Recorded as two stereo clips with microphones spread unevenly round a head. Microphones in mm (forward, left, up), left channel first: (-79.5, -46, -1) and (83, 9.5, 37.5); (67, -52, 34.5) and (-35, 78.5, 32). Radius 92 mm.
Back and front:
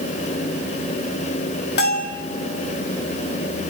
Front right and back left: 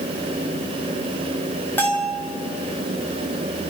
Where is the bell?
130° right, 4.5 m.